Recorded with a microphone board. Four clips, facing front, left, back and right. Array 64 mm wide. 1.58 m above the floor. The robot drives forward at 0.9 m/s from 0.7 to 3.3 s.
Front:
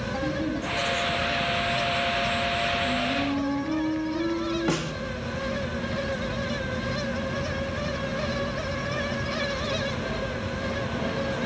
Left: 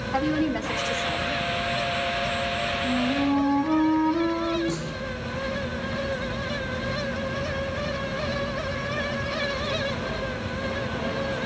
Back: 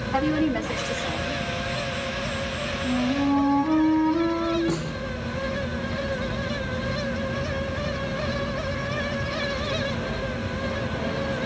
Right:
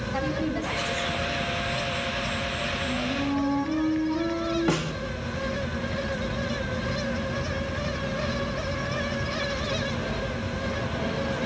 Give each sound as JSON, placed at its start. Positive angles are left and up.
{"t": 0.1, "sound": "a woman speaking", "azimuth_deg": 140, "distance_m": 6.0}
{"t": 2.8, "sound": "a flute", "azimuth_deg": 130, "distance_m": 4.0}
{"t": 4.7, "sound": "a snare drum", "azimuth_deg": -55, "distance_m": 4.0}